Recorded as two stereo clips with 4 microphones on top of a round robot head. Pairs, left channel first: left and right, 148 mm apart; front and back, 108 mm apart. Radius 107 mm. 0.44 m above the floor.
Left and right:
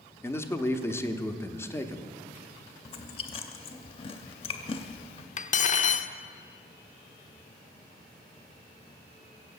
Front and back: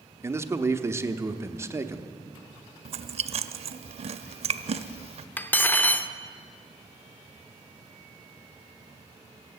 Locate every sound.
0.2 s a man speaking: 145° left, 0.8 m
2.9 s chewing: 150° left, 0.5 m
5.4 s cutlery clinking: 70° left, 0.7 m